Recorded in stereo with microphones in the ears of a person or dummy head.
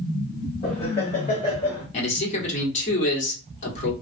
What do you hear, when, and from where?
0.6 s laughter: 30° left (ahead or behind), 0.9 m; by 1.9 s 40° left (ahead or behind), 1.6 m
1.9 s a man speaking: 35° left (ahead or behind), 1.4 m